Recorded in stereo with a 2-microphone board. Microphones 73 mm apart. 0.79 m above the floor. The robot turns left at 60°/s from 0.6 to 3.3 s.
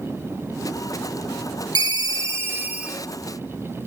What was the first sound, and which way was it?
A ringtone, 100° right.